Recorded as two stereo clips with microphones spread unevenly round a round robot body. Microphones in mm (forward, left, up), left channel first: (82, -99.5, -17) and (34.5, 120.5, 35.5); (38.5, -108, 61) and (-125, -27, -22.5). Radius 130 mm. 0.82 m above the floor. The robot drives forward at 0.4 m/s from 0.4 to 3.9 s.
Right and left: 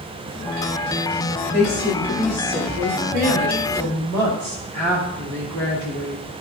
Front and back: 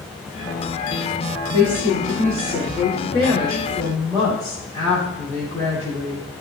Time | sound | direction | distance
1.5 | a woman speaking | 80° left | 2 m